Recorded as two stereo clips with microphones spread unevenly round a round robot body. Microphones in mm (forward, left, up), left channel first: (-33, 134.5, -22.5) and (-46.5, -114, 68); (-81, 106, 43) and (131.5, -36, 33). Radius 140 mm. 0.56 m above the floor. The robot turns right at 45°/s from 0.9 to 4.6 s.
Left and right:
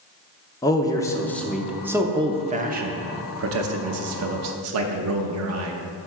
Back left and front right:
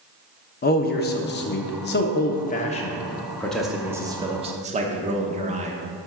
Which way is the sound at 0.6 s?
115° left.